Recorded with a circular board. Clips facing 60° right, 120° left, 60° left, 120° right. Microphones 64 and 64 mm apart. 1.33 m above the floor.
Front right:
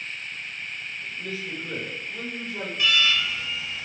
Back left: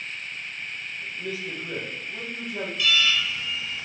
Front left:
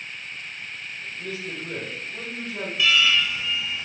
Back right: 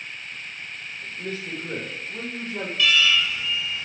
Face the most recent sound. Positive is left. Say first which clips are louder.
# front right 1 dB, even
turn(degrees=-10)